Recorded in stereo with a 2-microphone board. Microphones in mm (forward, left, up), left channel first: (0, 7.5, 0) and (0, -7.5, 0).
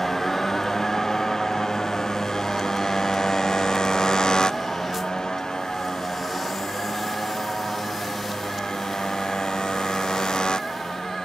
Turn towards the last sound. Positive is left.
turn(degrees=75)  # may be behind; listen again after turning